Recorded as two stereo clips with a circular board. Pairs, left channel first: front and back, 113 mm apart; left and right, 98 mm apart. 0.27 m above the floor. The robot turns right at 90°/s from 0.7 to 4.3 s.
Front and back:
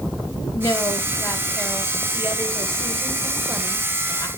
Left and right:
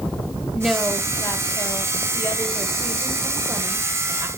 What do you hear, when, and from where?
0.5 s a woman speaking: 5° right, 1.7 m; by 4.3 s 45° right, 1.7 m